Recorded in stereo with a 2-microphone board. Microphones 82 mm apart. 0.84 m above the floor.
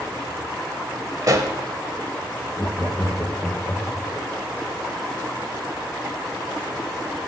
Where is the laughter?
20° left (ahead or behind), 1.5 m.